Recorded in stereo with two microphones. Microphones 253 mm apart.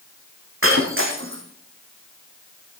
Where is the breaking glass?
55° right (ahead or behind), 3.5 m.